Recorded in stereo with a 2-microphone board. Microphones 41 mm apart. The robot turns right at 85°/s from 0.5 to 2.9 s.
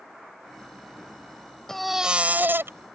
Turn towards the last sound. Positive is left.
turn(degrees=-90)